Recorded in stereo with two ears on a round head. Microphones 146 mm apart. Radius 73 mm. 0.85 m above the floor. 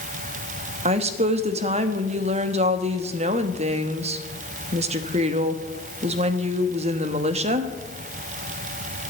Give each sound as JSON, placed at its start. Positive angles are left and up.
{"t": 0.8, "sound": "a woman speaking", "side_deg": -40, "distance_m": 1.1}